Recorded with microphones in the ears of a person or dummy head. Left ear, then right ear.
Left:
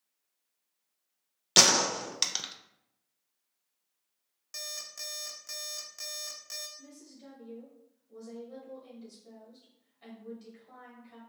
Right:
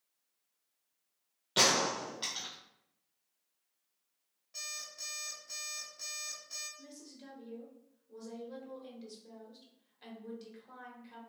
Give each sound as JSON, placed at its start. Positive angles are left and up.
{"t": 1.6, "sound": "a gunshot", "side_deg": 80, "distance_m": 0.5}
{"t": 4.5, "sound": "an alarm clock", "side_deg": 50, "distance_m": 0.6}
{"t": 6.8, "sound": "a woman speaking", "side_deg": -25, "distance_m": 1.1}